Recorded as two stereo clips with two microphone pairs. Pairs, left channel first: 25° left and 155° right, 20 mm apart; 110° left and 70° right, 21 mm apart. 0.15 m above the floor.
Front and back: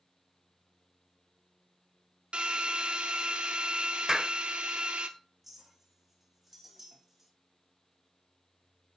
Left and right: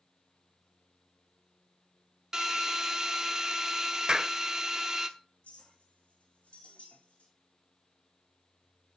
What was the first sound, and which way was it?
A drill, 140° right.